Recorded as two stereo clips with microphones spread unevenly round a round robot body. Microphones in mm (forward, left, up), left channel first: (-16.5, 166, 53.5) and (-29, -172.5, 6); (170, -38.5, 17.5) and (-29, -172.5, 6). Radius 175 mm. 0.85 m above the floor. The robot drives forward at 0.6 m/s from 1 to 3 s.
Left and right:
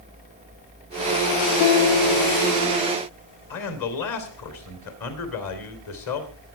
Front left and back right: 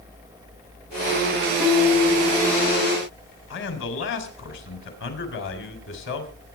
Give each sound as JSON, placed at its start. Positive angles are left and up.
{"t": 1.6, "sound": "a piano", "azimuth_deg": 140, "distance_m": 1.4}
{"t": 3.5, "sound": "a man speaking", "azimuth_deg": 60, "distance_m": 3.5}